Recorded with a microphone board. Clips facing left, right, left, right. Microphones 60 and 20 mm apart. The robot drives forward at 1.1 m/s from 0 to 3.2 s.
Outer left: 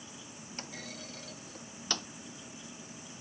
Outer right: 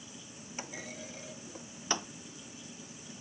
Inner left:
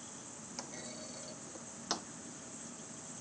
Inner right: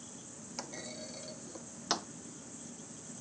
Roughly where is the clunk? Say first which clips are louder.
Outer right 2 dB, inner right 3 dB; centre.